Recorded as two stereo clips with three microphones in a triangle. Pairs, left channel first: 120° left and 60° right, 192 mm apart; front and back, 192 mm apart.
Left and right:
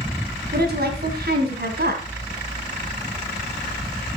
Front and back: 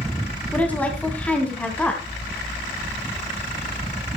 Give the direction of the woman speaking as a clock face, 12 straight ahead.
3 o'clock.